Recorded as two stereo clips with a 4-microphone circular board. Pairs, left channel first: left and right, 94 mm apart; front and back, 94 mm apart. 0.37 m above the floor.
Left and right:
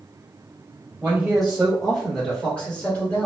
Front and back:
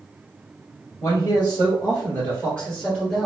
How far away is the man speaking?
About 1.7 m.